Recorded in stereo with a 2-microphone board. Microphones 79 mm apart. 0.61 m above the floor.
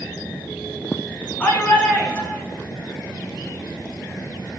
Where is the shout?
15° left (ahead or behind), 6 m; by 2.4 s 10° left (ahead or behind), 6.5 m.